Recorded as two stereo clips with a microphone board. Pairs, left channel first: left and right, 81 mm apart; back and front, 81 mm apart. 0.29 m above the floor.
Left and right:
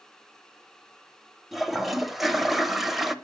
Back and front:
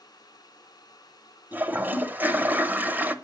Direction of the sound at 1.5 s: 5° right.